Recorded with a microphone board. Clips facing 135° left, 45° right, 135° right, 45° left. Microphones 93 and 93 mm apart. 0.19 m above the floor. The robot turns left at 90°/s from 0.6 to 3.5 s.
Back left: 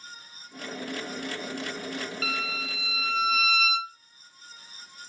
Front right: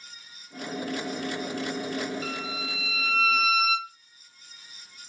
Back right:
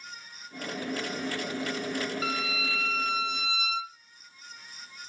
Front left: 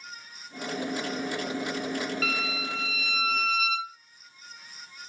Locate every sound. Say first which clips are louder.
2.2 s a violin: back left 1 dB, even; 155° left, 0.7 m; by 3.9 s 40° left, 0.7 m